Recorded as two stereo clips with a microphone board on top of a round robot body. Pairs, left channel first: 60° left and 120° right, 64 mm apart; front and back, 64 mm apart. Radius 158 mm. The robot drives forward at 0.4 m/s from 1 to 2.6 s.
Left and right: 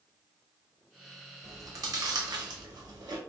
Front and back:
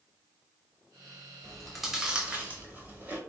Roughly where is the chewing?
Right.